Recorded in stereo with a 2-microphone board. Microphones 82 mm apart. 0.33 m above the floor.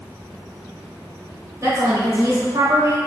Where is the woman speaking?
35° right (ahead or behind), 1.2 m.